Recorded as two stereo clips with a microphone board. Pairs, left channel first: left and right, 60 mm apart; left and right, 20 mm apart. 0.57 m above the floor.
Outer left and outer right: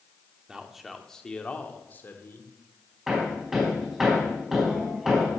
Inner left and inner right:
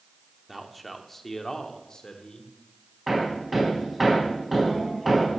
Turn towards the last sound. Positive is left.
turn(degrees=-5)  # may be behind; listen again after turning